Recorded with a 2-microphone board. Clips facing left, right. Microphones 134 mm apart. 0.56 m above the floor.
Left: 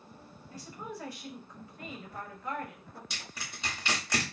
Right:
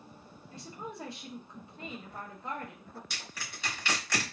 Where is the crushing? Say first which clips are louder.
Even; 20° left (ahead or behind), 1.4 m.